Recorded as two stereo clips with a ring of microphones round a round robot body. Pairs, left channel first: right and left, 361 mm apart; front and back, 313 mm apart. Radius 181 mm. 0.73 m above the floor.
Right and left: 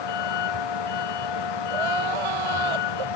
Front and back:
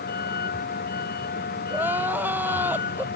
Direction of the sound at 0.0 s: 65° right.